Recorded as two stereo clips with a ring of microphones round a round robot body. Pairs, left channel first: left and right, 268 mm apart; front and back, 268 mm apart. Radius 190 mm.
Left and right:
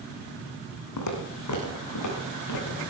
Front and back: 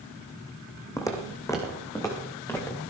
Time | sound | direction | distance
1.0 | footsteps | 80° left | 3 m